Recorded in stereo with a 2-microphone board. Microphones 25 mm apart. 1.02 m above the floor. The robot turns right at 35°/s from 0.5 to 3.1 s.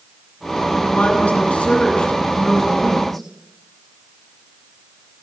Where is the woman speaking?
85° left, 9 m; by 3.2 s 170° left, 9 m.